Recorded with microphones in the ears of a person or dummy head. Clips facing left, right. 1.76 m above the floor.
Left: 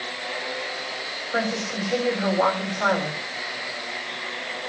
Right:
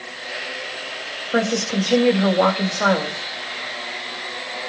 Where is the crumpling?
No crumpling in this recording.